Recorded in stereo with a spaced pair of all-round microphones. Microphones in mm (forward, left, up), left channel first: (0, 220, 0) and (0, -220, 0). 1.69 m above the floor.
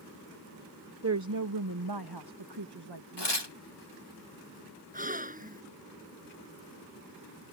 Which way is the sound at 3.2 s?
70° left (ahead or behind).